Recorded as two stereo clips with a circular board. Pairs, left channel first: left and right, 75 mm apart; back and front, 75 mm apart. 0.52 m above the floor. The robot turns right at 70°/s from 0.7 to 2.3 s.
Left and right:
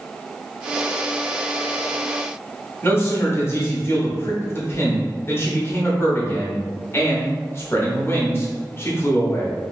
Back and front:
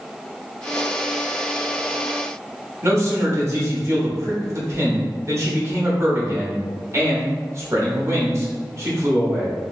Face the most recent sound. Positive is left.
turn(degrees=40)